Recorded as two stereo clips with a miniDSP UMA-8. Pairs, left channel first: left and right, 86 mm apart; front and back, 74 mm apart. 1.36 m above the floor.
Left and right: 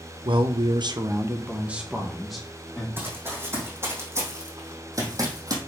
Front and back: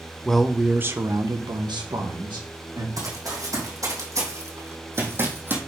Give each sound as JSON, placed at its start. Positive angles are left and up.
{"t": 0.2, "sound": "a man speaking", "azimuth_deg": -80, "distance_m": 1.2}
{"t": 3.0, "sound": "running footsteps", "azimuth_deg": -155, "distance_m": 3.5}